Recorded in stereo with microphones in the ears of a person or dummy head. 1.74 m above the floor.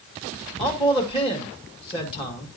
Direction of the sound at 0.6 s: 30° left (ahead or behind).